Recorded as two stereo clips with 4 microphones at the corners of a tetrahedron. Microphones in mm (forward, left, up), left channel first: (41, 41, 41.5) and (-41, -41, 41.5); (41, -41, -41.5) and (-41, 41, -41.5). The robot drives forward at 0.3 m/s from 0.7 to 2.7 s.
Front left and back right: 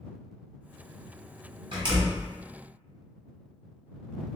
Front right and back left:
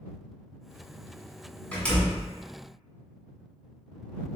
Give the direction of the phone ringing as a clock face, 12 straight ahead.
I don't hear a phone ringing.